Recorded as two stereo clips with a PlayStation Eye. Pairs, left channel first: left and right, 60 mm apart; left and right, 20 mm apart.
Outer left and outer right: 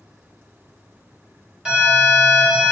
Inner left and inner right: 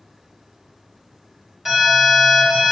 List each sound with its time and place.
1.6 s an alarm: 10° right (ahead or behind), 1.5 m